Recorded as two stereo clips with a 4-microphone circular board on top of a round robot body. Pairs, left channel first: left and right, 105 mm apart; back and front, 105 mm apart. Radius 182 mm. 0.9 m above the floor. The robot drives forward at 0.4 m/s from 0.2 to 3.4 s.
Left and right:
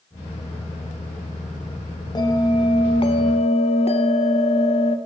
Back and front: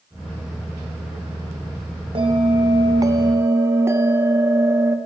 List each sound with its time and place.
2.1 s a bell: 40° left, 1.0 m; by 5.0 s 65° left, 0.7 m